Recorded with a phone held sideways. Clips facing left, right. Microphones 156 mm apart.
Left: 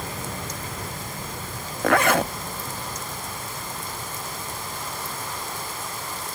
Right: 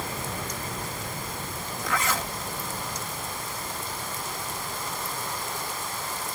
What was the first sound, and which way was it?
A zipper, 65° left (ahead or behind).